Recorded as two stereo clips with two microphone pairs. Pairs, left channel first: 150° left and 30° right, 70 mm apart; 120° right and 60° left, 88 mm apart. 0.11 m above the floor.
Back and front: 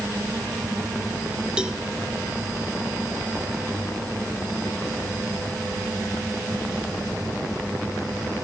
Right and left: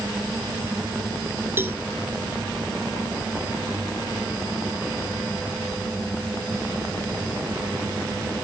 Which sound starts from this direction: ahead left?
A cowbell, at 1.6 s.